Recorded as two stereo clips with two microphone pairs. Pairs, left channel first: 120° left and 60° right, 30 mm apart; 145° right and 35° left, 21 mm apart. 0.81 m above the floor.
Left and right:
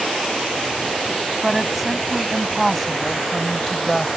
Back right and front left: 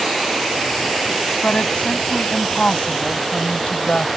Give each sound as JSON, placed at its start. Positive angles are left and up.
{"t": 1.4, "sound": "a woman speaking", "azimuth_deg": -145}